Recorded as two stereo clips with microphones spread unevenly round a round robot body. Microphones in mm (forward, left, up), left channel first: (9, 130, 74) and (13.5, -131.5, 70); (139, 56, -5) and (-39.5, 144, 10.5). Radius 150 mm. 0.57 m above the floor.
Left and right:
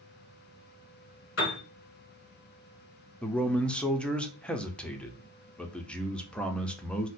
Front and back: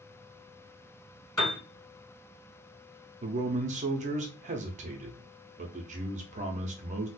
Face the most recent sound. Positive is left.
turn(degrees=175)